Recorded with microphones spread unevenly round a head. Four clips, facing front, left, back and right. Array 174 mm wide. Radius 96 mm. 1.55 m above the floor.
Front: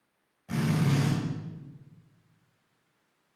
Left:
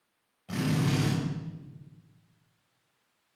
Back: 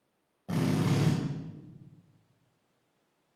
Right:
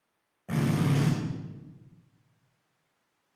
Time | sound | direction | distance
0.5 | a drill | 145° right | 5 m